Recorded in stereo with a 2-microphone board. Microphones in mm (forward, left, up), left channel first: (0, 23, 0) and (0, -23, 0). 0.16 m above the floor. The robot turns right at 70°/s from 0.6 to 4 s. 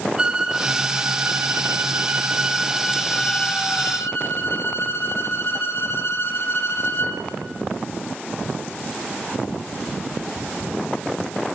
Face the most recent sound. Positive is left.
turn(degrees=80)